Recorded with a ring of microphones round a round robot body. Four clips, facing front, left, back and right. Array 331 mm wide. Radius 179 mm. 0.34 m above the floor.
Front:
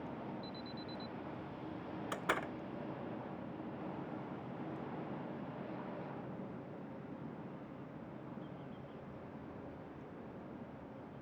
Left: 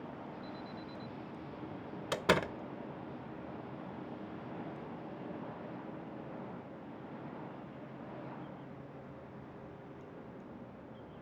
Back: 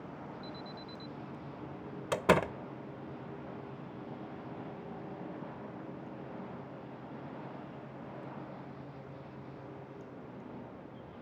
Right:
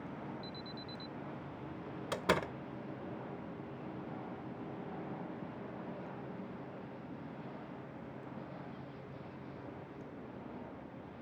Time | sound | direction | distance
0.4 | an alarm | 95° right | ?
2.1 | a door slam | 170° left | ?